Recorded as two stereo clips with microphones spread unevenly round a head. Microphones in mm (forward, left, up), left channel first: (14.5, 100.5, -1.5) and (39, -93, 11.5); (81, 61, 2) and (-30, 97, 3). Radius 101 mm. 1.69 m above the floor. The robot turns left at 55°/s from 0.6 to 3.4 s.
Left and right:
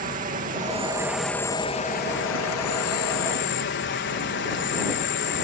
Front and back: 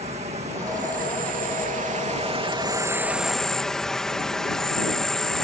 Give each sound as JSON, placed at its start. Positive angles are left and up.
{"t": 0.0, "sound": "an insect", "azimuth_deg": -140}